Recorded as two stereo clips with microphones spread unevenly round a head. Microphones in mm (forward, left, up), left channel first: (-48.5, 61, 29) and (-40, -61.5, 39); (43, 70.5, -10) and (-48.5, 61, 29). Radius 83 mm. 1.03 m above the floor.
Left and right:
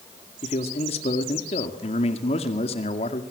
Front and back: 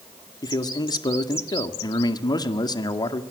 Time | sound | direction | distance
0.4 | a man speaking | 45° left | 2 m